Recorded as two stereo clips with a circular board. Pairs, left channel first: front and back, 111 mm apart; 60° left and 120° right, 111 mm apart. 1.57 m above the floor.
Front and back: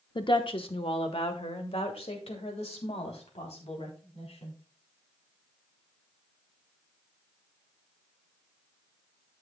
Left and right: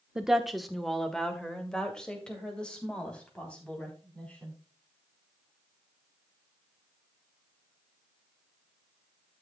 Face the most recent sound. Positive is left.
turn(degrees=-20)